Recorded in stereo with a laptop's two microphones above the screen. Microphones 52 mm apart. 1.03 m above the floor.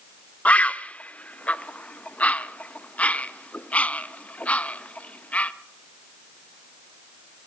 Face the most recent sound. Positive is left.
turn(degrees=25)  # may be behind; listen again after turning